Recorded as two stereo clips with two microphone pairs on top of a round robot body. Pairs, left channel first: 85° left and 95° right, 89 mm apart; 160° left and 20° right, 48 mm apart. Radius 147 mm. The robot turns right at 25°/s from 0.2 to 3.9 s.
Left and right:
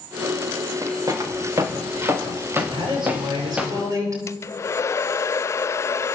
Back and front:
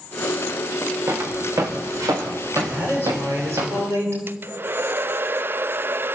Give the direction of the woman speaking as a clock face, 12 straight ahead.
2 o'clock.